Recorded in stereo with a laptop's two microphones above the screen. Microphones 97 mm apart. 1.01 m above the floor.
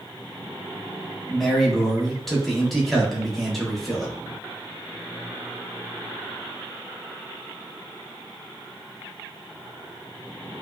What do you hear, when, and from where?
1.3 s a man speaking: centre (ahead or behind), 0.8 m